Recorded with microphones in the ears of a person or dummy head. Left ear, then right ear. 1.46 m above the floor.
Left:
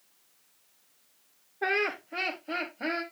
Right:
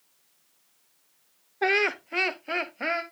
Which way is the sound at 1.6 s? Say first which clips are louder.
Right 4 dB; 65° right (ahead or behind).